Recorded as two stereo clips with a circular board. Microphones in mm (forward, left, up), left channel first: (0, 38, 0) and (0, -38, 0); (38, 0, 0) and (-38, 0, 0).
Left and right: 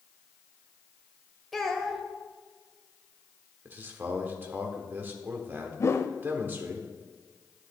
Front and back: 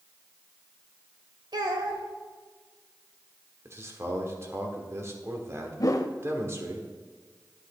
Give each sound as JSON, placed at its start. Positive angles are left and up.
{"t": 1.5, "sound": "a child speaking", "azimuth_deg": 175, "distance_m": 1.4}
{"t": 3.6, "sound": "a man speaking", "azimuth_deg": -145, "distance_m": 1.3}
{"t": 5.8, "sound": "a whoosh", "azimuth_deg": 40, "distance_m": 0.5}